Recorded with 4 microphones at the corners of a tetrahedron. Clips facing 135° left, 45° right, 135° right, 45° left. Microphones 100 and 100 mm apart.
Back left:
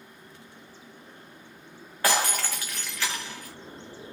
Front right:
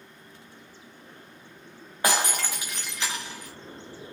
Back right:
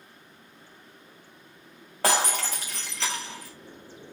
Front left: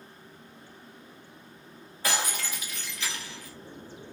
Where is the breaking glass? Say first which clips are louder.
Even, back right 6 dB; 115° right, 4.5 m.